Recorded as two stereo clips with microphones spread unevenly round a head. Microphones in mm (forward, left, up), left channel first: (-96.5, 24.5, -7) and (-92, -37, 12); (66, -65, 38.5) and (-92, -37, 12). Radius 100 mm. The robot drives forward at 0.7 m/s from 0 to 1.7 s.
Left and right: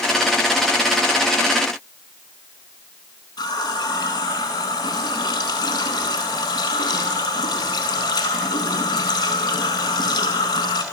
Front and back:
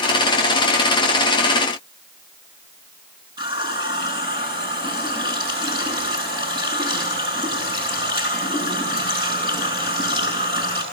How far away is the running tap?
About 9 m.